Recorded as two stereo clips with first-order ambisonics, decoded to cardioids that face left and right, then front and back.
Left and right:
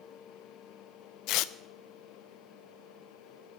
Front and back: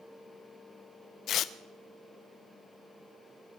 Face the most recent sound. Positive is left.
turn(degrees=55)